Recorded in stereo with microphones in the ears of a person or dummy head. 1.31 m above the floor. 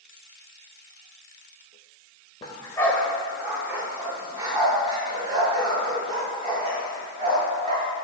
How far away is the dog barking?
About 1.7 m.